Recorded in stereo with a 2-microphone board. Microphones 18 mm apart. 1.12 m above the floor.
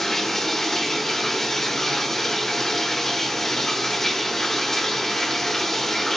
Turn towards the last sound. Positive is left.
turn(degrees=25)  # may be behind; listen again after turning